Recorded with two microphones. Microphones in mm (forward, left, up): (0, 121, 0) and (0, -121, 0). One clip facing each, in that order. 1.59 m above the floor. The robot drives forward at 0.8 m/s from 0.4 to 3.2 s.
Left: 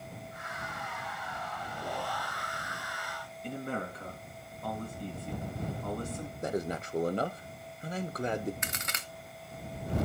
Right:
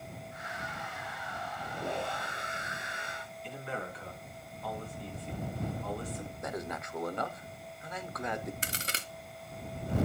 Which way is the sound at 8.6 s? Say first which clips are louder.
Right 1 dB; 35° right (ahead or behind).